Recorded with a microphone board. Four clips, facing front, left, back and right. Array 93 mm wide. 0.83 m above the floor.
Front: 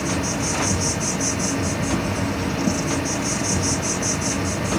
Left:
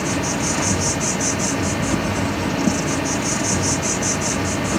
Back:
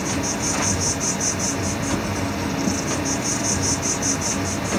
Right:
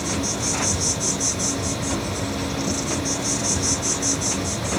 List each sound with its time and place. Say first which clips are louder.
0.0 s an insect: left 4 dB, front 1 dB; 80° left, 0.8 m